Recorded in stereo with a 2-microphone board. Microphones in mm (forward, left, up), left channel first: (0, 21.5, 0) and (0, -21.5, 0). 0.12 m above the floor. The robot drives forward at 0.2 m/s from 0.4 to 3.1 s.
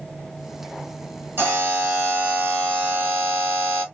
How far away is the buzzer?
About 1.6 m.